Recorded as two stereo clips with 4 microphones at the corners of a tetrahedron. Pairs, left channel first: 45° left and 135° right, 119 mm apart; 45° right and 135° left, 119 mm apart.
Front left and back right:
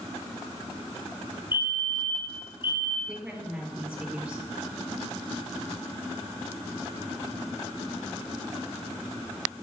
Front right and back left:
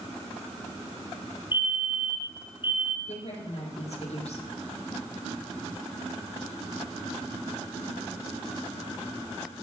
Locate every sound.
1.5 s a fire alarm: 60° right, 3 m
3.1 s a woman speaking: 55° right, 4 m